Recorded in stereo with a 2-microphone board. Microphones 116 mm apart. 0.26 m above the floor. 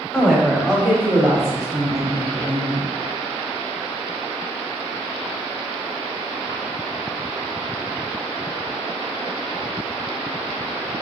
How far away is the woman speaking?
About 1.0 m.